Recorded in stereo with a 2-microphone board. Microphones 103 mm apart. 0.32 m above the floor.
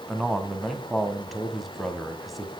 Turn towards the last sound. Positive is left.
turn(degrees=0)  # may be behind; listen again after turning